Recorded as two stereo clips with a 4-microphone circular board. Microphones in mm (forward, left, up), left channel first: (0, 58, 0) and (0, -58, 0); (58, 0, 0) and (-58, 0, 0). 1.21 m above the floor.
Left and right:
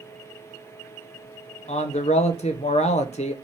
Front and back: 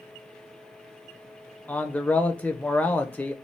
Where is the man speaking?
75° left, 0.6 m.